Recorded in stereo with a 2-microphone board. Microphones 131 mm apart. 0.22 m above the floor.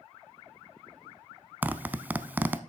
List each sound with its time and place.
1.6 s a zipper: 15° right (ahead or behind), 0.5 m